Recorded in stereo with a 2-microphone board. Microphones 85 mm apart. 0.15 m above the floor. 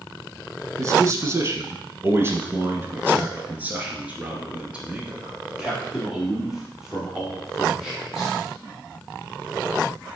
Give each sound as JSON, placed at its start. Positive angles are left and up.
{"t": 0.8, "sound": "a man speaking", "side_deg": -40, "distance_m": 1.5}